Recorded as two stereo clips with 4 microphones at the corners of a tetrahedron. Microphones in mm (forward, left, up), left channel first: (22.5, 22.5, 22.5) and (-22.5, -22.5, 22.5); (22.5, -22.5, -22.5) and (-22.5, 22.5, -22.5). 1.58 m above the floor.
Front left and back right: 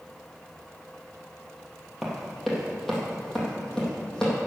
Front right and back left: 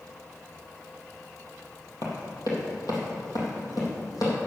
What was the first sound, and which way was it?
Running footsteps, 50° right.